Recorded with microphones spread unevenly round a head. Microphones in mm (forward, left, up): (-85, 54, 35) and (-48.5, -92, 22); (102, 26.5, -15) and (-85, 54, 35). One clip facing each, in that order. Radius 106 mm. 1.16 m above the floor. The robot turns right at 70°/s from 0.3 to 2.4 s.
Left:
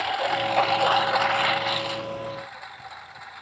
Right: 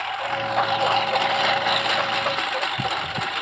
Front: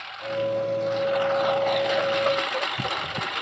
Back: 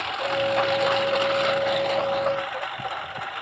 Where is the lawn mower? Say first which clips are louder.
Left 2 dB, back 2 dB; 155° left; by 3.4 s 55° right.